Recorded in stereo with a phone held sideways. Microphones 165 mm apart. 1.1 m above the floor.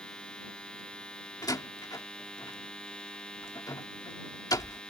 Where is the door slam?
20° left (ahead or behind).